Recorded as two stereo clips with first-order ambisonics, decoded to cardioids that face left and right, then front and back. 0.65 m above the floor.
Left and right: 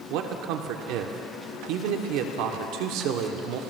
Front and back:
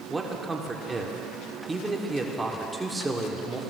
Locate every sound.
0.1 s a man speaking: 100° right, 1.3 m